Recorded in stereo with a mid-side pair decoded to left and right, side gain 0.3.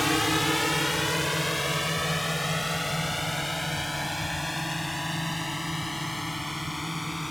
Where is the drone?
15° left.